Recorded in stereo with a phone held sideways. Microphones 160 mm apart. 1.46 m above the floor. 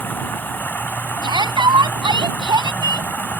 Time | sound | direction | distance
0.0 | running water | 10° left (ahead or behind) | ?
1.2 | a shout | 30° right (ahead or behind) | ?